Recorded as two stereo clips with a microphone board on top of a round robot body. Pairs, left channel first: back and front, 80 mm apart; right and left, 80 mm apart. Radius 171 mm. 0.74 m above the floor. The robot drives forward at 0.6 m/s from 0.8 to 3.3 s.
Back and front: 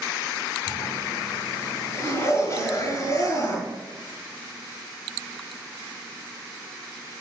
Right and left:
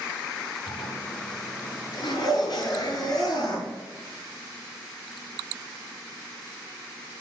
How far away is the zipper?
About 6 m.